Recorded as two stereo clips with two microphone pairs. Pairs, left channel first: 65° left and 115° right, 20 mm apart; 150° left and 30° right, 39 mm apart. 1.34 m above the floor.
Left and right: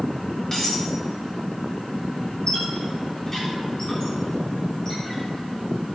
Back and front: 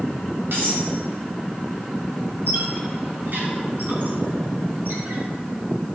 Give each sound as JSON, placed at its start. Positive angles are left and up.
{"t": 0.5, "sound": "cutlery clinking", "azimuth_deg": 0, "distance_m": 4.0}
{"t": 2.5, "sound": "a squeak", "azimuth_deg": 0, "distance_m": 2.5}